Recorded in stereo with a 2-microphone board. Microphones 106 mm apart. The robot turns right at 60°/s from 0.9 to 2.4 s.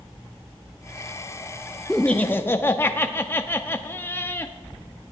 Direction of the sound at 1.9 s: 10° left.